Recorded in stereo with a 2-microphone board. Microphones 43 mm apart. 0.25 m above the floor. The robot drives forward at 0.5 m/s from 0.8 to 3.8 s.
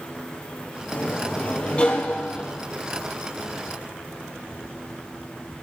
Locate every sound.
0.9 s a sliding door: 35° left (ahead or behind), 1.2 m; by 2.6 s 20° left (ahead or behind), 2.0 m